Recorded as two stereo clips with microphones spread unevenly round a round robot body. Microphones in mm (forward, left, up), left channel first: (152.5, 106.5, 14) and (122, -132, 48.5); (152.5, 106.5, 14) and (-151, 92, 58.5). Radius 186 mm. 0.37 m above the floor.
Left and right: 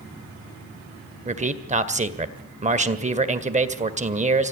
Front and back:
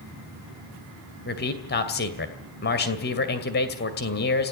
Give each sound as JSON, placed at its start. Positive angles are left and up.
{"t": 1.2, "sound": "a man speaking", "azimuth_deg": -35, "distance_m": 2.0}